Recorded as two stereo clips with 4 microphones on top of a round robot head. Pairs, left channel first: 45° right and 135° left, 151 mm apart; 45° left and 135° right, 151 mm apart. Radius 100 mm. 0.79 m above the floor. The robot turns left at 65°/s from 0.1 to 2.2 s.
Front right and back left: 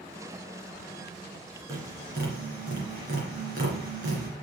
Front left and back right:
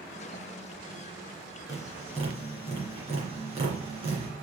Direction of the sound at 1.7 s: 155° right.